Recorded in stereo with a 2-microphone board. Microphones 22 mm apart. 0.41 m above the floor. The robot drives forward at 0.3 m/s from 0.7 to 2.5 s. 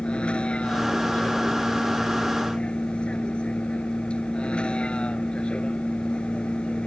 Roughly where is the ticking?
I don't hear ticking.